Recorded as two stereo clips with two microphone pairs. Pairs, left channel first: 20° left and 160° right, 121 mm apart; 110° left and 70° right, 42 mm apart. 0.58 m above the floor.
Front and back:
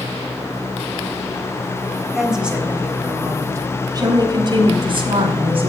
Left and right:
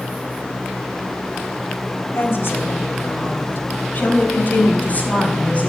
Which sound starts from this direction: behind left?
A woman speaking, at 2.1 s.